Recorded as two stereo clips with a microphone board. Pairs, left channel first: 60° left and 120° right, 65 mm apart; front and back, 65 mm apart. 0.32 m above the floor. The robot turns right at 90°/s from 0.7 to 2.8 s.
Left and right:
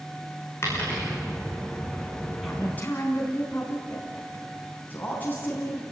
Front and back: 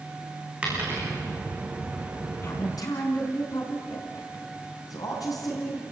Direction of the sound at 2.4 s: 35° right.